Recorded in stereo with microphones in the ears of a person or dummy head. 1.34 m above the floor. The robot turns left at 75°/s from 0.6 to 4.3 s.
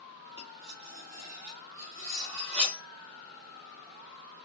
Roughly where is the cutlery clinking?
Centre.